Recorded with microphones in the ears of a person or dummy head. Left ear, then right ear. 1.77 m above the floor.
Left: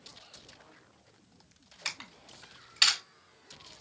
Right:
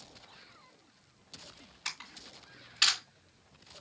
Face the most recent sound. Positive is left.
turn(degrees=20)  # may be behind; listen again after turning